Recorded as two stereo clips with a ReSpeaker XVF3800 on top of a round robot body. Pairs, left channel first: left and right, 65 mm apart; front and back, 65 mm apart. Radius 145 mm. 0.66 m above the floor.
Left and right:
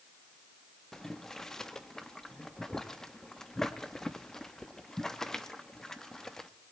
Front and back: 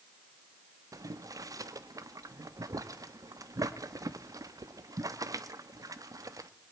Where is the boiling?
170° left, 1.2 m.